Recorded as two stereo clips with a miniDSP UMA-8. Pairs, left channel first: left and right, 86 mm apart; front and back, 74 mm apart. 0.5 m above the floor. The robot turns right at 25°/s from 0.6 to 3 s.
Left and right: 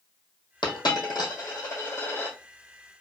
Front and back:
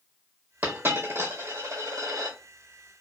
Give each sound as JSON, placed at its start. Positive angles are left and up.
{"t": 0.6, "sound": "a dropped coin", "azimuth_deg": 115, "distance_m": 1.4}